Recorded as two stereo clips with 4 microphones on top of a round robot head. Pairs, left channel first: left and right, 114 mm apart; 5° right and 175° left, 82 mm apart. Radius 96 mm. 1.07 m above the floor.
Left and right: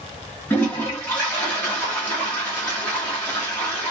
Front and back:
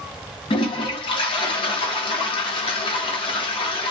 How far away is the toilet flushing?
About 1.1 m.